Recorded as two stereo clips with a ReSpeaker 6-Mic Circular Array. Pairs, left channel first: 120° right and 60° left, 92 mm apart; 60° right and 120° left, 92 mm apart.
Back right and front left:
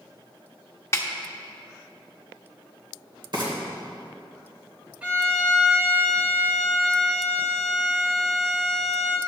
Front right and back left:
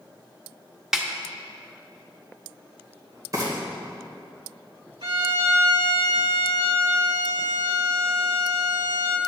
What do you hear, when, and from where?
0.9 s a snare drum: 155° right, 0.9 m
3.3 s frying: 75° left, 2.5 m
5.0 s a violin: 135° left, 1.2 m